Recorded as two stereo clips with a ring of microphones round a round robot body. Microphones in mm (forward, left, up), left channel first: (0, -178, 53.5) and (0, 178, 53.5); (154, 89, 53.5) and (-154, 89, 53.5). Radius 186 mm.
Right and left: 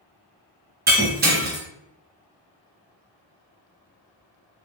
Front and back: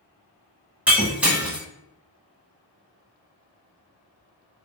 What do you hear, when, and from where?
0.9 s breaking glass: 100° left, 0.7 m